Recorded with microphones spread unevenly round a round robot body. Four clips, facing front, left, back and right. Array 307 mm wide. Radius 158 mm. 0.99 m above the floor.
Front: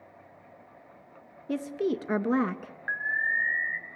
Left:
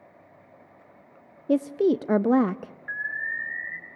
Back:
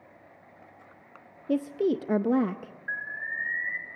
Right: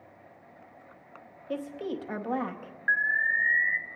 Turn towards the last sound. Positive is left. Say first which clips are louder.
# right 6 dB, front 6 dB
turn(degrees=-10)